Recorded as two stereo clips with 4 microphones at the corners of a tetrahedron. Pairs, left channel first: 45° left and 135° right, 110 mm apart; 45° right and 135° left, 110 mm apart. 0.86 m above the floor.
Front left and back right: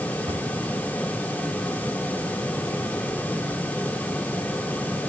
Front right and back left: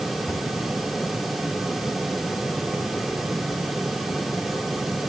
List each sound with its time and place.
0.3 s a cupboard door: 110° right, 6 m